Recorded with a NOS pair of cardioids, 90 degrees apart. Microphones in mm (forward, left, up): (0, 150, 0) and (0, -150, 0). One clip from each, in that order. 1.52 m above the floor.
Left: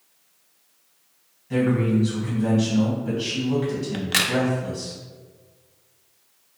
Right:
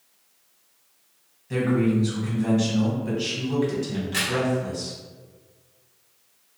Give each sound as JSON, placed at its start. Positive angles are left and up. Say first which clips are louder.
{"t": 1.5, "sound": "a man speaking", "louder": "left 1 dB", "azimuth_deg": -15, "distance_m": 1.2}
{"t": 3.9, "sound": "a crack", "louder": "left 8 dB", "azimuth_deg": 50, "distance_m": 0.5}